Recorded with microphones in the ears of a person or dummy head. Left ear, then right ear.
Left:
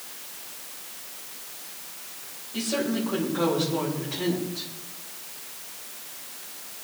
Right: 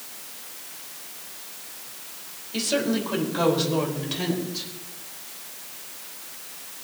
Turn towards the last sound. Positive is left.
turn(degrees=-80)